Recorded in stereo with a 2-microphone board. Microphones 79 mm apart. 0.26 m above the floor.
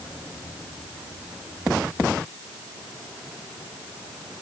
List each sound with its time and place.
Only background noise.